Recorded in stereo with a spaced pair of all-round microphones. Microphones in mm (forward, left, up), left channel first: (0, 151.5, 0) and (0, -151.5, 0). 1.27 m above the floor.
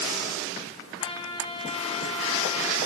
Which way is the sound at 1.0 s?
20° left (ahead or behind).